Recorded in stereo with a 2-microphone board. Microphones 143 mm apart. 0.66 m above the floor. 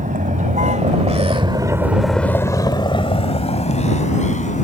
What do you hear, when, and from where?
0.0 s a vehicle: 70° right (ahead or behind); by 4.6 s 60° left (ahead or behind)